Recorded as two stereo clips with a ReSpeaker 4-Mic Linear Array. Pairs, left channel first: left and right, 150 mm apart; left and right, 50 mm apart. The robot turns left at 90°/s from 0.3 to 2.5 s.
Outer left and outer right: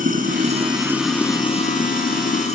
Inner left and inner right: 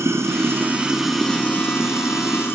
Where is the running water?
110° right, 2.5 m; by 2.5 s 50° left, 2.5 m.